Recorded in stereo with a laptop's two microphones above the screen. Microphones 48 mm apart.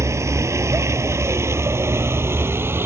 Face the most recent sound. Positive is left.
turn(degrees=-55)  # may be behind; listen again after turning